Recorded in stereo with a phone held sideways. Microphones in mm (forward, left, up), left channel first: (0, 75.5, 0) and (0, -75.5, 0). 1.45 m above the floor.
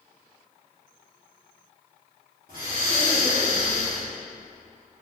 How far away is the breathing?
About 3 m.